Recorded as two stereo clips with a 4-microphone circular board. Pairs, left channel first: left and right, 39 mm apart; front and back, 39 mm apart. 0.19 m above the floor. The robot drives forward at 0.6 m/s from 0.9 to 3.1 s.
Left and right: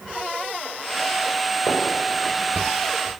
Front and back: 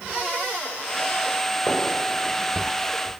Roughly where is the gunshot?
Left.